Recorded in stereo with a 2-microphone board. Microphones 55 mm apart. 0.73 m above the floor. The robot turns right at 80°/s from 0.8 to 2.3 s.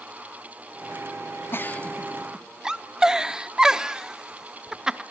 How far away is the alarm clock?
No alarm clock in this recording.